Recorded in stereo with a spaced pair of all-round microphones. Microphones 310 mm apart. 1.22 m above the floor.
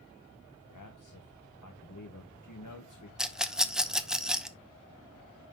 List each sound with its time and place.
0.7 s a man speaking: 75° left (ahead or behind), 1.1 m
3.2 s a rattle: centre (ahead or behind), 0.6 m